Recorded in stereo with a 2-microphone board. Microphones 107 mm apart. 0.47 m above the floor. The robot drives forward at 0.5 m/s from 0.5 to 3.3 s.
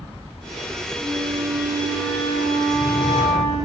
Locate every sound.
1.0 s a flute: 5° right (ahead or behind), 3.5 m; by 3.7 s centre (ahead or behind), 4.5 m